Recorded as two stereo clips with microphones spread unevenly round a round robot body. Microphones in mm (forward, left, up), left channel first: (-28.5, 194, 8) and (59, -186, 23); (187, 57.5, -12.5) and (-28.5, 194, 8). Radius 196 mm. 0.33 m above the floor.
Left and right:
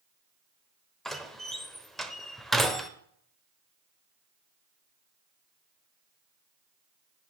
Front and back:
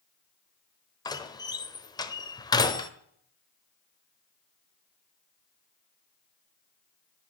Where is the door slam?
20° left, 0.8 m.